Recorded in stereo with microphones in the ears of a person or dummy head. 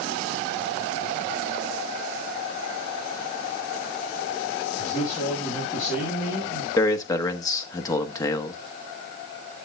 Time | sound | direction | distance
4.8 | a man speaking | 15° left (ahead or behind) | 4.5 m
6.8 | a man speaking | 15° left (ahead or behind) | 1.1 m